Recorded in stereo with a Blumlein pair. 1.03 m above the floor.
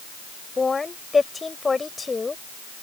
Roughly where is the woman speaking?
Ahead.